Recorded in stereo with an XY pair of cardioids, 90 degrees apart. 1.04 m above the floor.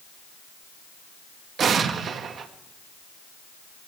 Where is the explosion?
65° right, 1.3 m.